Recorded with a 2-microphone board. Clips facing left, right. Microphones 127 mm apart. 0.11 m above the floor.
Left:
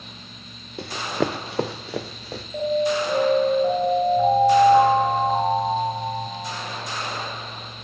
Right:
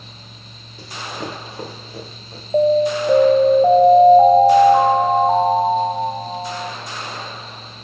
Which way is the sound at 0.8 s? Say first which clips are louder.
Left 6 dB; 65° left (ahead or behind).